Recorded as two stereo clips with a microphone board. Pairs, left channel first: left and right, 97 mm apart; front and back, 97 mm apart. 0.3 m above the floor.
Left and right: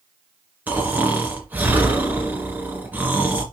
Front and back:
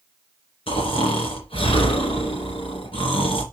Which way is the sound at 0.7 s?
15° right.